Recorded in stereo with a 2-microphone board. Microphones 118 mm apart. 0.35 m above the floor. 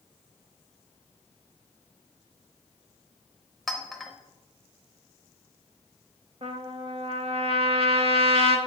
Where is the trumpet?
55° right (ahead or behind), 0.7 m.